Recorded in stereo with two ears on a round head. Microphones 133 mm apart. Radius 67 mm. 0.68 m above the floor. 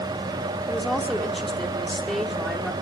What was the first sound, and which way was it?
A woman speaking, centre (ahead or behind).